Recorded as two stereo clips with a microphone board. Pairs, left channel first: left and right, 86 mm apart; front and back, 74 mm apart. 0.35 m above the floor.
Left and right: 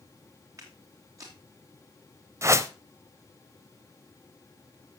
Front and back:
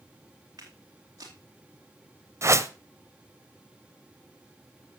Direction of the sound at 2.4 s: 140° right.